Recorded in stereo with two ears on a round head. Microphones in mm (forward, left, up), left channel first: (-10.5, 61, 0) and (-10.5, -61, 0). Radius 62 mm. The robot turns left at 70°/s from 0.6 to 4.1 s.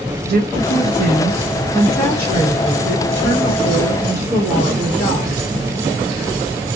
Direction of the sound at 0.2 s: 100° right.